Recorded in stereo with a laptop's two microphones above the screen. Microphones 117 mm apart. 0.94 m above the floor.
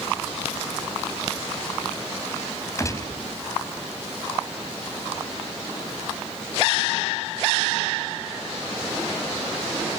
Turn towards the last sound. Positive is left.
turn(degrees=25)  # may be behind; listen again after turning